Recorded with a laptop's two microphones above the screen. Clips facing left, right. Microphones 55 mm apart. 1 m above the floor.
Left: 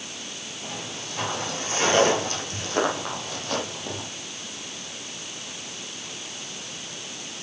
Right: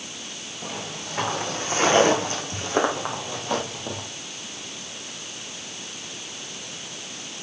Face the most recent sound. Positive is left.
turn(degrees=-10)  # may be behind; listen again after turning